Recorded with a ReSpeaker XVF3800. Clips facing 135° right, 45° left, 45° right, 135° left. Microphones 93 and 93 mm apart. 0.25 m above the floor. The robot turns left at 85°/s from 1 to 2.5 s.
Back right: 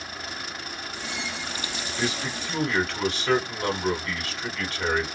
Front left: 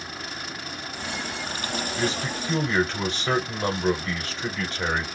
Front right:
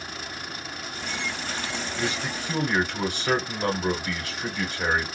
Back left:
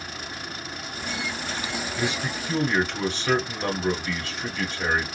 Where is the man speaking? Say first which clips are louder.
Even, back left 1 dB; 70° left, 1.5 m; by 5.1 s 25° left, 1.5 m.